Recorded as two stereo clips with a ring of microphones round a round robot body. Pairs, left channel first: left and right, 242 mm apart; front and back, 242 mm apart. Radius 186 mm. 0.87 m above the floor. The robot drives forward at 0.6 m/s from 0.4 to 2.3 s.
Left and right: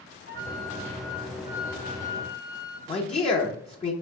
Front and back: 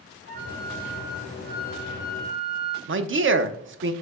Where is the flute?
135° right, 0.7 m; by 2.8 s 165° right, 1.6 m.